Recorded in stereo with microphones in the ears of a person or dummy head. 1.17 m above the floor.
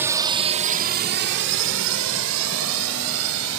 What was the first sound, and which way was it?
A drone, 10° right (ahead or behind).